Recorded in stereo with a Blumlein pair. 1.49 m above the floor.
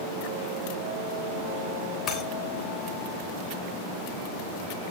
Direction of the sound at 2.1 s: 25° left.